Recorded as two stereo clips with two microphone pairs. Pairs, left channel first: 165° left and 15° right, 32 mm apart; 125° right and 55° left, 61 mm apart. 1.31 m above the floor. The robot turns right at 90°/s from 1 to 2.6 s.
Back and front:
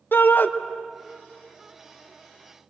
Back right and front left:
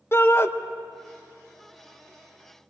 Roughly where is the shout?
Behind.